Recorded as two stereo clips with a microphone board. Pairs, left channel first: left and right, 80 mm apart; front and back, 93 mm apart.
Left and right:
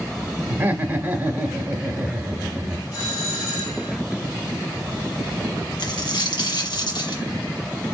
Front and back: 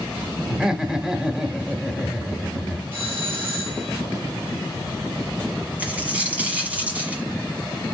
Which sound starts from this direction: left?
A dropped coin, at 5.8 s.